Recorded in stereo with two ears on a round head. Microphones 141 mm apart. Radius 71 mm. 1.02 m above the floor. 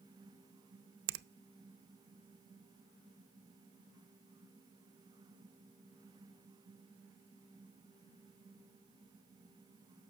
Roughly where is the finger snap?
Right.